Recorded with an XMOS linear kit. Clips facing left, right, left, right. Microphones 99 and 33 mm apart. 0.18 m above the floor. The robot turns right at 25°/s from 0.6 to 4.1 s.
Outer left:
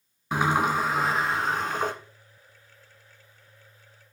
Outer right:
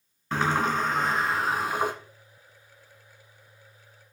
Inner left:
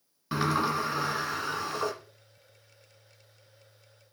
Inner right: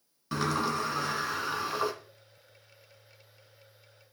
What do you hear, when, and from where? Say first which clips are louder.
0.3 s a sliding door: outer left 1 dB, inner left 2 dB; 165° left, 1.4 m; by 1.9 s 165° right, 1.4 m